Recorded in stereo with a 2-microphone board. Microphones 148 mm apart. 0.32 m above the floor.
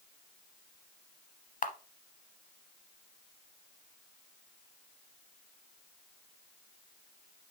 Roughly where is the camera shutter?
Left.